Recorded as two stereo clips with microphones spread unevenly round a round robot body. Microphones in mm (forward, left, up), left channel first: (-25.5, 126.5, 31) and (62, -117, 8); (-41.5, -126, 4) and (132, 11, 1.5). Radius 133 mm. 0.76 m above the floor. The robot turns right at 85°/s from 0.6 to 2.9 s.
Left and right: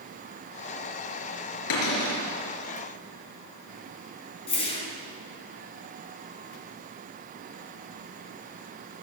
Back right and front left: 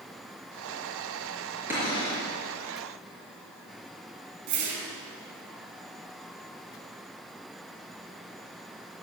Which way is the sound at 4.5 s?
40° left.